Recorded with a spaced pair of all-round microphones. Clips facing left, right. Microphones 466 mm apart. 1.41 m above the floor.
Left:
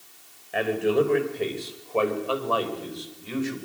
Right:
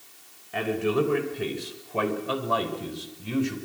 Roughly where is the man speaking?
Centre.